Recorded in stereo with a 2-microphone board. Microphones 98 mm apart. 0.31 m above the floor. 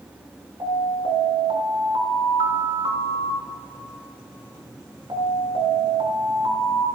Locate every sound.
0.6 s an alarm: 60° right (ahead or behind), 7 m